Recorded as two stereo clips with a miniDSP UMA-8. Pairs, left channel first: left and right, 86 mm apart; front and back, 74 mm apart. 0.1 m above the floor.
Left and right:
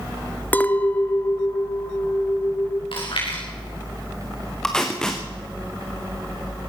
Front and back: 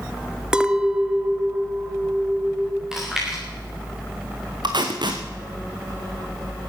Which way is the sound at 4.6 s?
170° left.